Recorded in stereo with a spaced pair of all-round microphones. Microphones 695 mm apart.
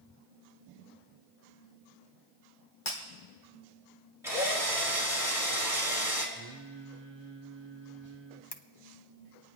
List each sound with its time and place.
2.9 s breaking glass: 45° left (ahead or behind), 2.5 m
4.2 s a drill: 5° right (ahead or behind), 3 m
6.3 s singing: 40° right (ahead or behind), 0.9 m
8.5 s a camera shutter: 35° left (ahead or behind), 0.7 m